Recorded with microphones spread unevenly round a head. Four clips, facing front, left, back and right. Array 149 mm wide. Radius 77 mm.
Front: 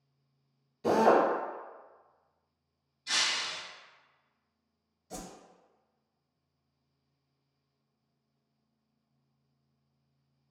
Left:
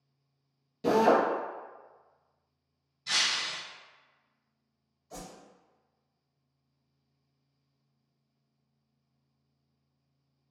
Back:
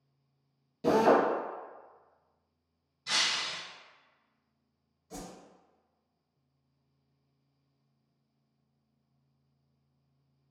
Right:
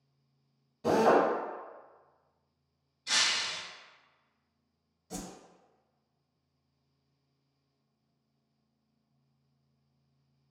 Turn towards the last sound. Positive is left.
turn(degrees=-90)